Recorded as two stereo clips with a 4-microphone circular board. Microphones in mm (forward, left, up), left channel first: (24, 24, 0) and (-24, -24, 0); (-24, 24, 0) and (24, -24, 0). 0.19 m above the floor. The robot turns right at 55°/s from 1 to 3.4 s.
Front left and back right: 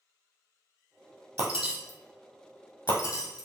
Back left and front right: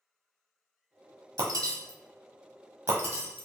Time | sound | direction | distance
1.4 | breaking glass | 70° right | 1.1 m